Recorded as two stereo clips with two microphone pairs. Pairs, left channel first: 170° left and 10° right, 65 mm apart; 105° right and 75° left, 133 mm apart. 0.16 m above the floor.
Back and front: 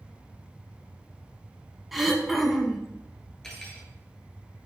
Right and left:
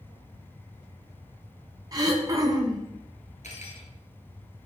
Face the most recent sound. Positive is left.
turn(degrees=-105)